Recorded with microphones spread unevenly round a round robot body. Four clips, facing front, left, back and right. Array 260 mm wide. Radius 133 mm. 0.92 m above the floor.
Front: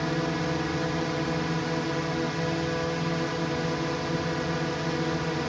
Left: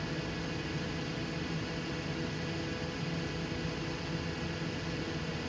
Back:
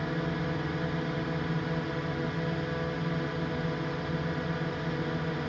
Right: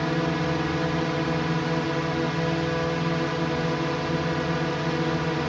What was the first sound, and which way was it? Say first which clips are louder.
A drone: right 13 dB, front 4 dB; 75° right.